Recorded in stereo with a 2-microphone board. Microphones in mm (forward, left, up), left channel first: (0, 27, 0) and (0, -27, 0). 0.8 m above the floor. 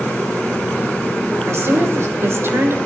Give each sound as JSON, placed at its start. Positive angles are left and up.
{"t": 1.5, "sound": "a woman speaking", "side_deg": -50, "distance_m": 3.0}